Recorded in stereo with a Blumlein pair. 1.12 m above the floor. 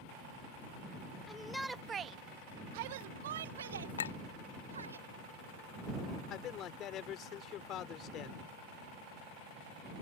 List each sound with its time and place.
1.3 s a shout: 15° left; by 5.0 s 75° right
4.0 s a clink: 65° left
6.3 s a man speaking: 30° left